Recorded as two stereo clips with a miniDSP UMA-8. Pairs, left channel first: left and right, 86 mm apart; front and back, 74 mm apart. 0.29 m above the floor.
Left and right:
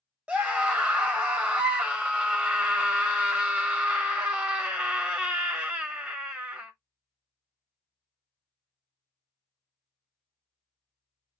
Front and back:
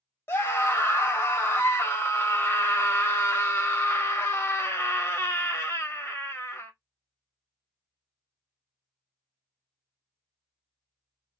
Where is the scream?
25° right, 1.1 m.